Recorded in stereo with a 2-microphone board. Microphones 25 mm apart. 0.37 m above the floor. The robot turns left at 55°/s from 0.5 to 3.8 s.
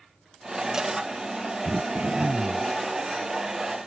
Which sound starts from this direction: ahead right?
Throat clearing, at 1.6 s.